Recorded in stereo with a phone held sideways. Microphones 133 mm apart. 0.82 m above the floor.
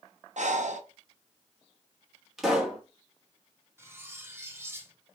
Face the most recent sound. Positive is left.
turn(degrees=-20)  # may be behind; listen again after turning